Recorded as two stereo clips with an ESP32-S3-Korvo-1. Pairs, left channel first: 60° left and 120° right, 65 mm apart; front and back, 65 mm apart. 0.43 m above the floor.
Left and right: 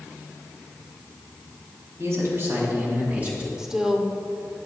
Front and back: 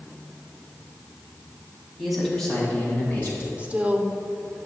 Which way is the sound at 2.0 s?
95° right.